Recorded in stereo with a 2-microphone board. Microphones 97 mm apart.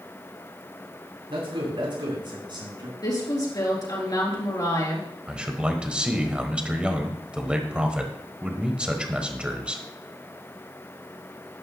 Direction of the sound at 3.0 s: 45° left (ahead or behind).